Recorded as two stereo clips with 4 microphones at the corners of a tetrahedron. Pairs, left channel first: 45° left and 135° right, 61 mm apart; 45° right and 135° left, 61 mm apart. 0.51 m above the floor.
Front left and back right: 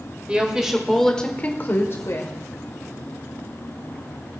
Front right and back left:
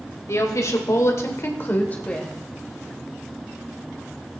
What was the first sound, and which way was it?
A woman speaking, 65° right.